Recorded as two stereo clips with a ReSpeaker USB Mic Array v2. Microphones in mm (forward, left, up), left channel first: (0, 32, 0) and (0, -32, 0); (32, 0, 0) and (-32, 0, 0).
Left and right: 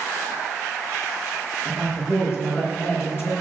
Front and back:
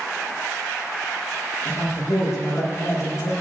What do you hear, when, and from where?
1.6 s a man speaking: 40° left, 6 m